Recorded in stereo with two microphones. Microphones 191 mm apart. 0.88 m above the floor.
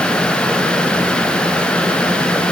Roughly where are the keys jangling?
No keys jangling in this recording.